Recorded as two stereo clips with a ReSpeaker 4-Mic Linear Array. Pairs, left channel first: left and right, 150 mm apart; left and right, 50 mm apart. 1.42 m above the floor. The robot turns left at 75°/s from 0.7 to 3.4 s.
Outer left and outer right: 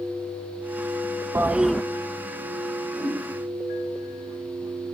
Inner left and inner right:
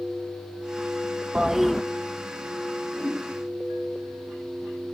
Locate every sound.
1.4 s a toilet flushing: 155° right, 0.7 m; by 1.8 s 170° left, 0.7 m
2.9 s a whoosh: 15° left (ahead or behind), 8 m; by 3.2 s 35° left (ahead or behind), 8 m